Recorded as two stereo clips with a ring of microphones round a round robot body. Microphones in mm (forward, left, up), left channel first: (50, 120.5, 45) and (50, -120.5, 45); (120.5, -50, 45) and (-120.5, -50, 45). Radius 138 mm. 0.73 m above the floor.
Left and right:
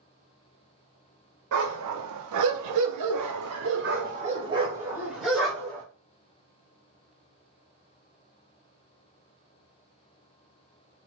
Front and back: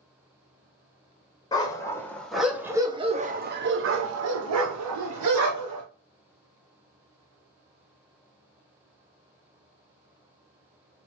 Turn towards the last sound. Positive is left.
turn(degrees=175)